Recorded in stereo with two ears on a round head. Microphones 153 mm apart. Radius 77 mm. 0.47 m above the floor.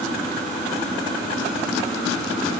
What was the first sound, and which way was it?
Only background noise.